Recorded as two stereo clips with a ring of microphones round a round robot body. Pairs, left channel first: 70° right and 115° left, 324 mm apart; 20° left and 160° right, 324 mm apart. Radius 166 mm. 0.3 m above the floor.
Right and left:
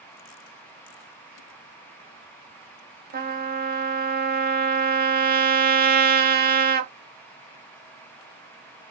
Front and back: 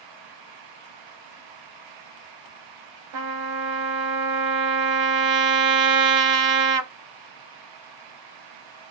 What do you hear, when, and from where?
3.1 s a trumpet: 175° left, 0.7 m